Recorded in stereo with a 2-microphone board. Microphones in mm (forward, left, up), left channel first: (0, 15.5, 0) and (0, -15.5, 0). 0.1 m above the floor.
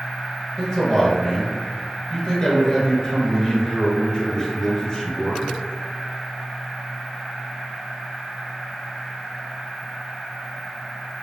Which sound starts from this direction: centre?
A man speaking, at 0.6 s.